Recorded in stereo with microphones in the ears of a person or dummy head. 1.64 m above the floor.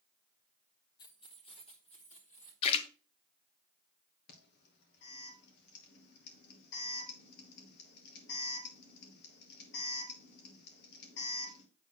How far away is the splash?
About 1.0 m.